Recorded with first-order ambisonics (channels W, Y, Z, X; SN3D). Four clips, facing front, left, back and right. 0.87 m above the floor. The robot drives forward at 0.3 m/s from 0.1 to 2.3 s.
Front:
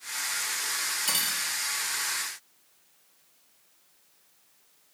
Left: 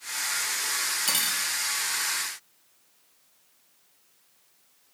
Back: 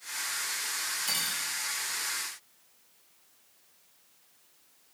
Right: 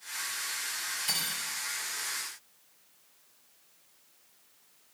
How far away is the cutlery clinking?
About 0.9 m.